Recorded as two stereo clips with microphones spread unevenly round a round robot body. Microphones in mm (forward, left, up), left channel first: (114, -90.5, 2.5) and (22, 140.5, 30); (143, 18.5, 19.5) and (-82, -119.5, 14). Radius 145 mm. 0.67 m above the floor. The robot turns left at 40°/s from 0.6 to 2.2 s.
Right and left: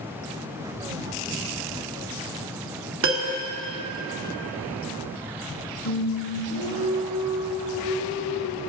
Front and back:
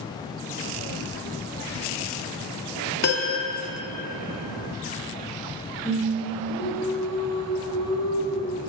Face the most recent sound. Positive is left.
turn(degrees=-40)